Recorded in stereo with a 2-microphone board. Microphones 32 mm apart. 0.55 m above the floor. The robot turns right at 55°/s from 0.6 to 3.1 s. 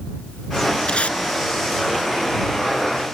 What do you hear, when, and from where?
0.9 s tape being pulled: 35° left (ahead or behind); by 1.2 s 50° left (ahead or behind)